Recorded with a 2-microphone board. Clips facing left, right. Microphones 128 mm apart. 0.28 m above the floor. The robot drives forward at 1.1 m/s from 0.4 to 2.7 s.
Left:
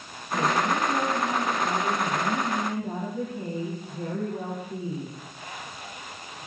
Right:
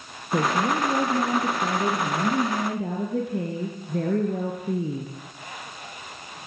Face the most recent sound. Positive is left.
turn(degrees=-75)  # may be behind; listen again after turning